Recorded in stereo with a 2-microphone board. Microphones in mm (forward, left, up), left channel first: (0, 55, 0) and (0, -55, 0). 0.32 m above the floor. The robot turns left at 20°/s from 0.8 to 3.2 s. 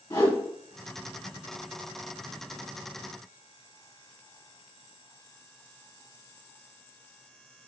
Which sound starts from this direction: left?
A whoosh, at 0.1 s.